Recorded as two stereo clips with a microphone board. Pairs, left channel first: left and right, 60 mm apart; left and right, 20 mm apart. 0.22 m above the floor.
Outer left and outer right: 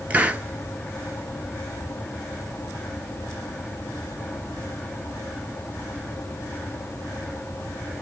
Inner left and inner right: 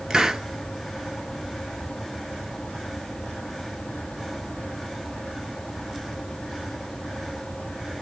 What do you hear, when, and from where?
0.1 s a hiss: 25° right (ahead or behind), 1.0 m